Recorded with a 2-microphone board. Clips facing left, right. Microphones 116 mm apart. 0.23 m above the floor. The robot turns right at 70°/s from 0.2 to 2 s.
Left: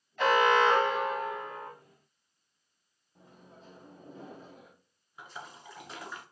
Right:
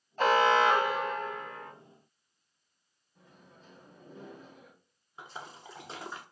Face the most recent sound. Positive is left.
turn(degrees=-30)  # may be behind; listen again after turning